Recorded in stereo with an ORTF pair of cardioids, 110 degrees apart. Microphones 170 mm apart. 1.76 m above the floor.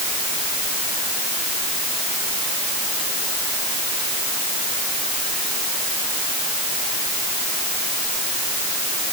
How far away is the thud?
I don't hear a thud.